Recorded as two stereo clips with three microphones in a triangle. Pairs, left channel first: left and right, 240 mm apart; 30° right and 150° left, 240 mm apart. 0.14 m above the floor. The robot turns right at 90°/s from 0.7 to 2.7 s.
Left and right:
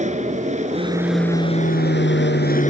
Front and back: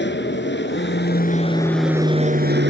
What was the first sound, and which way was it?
An aircraft, 40° right.